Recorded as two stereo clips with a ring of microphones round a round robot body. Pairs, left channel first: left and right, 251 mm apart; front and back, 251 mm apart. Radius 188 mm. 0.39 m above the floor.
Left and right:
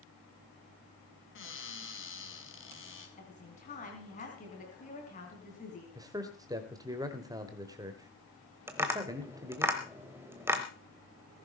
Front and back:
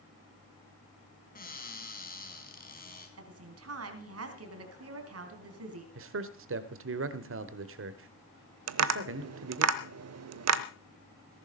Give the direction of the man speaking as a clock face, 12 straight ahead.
5 o'clock.